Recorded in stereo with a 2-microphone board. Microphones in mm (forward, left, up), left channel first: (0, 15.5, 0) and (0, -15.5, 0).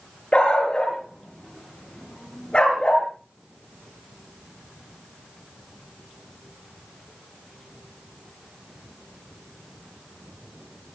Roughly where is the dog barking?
Left.